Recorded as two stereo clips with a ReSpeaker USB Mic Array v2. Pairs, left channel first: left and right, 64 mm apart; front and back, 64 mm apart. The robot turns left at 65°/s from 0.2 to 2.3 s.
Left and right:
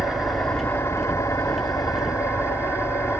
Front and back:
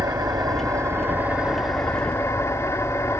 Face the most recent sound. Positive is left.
turn(degrees=50)